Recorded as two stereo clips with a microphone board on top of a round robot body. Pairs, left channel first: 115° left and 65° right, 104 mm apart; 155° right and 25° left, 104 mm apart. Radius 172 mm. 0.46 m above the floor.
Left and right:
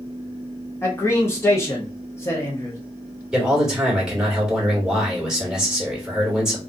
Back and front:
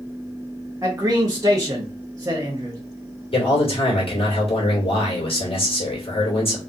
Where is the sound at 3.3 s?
150° right, 2 m.